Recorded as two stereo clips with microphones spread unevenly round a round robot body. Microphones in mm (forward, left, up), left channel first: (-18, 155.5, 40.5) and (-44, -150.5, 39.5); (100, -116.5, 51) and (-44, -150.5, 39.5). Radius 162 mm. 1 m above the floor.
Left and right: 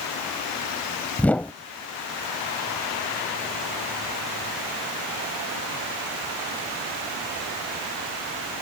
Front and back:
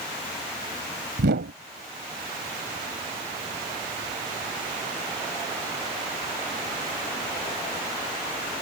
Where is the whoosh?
170° left.